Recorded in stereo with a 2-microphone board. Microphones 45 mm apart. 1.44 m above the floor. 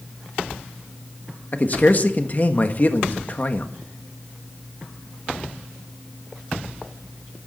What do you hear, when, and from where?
1.5 s a man speaking: 45° left (ahead or behind), 1.5 m